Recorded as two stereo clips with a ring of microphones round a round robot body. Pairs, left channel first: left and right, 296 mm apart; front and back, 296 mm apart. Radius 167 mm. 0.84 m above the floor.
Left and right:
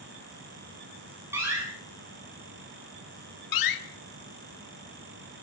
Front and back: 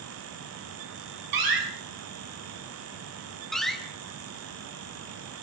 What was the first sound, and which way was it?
A door slam, 175° right.